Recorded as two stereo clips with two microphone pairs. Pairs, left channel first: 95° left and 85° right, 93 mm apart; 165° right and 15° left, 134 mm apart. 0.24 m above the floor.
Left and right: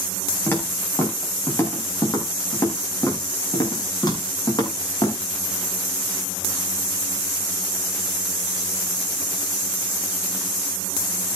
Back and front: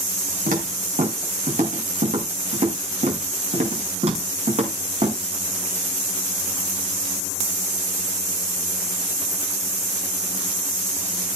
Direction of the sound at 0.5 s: 25° left.